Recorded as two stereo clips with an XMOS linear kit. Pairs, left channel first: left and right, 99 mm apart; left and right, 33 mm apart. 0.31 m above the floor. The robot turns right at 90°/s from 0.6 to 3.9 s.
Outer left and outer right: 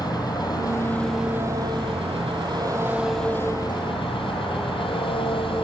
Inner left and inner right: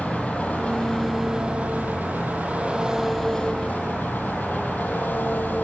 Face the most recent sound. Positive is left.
turn(degrees=70)